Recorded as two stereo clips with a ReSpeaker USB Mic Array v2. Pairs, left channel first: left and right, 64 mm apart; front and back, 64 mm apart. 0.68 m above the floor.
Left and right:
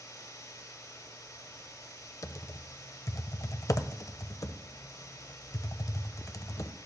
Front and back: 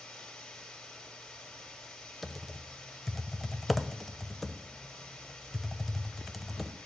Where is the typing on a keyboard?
85° left, 0.6 m.